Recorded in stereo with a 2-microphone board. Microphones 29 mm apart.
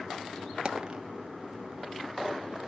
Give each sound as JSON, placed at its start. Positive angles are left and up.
{"t": 0.7, "sound": "a dropped coin", "side_deg": -35, "distance_m": 1.2}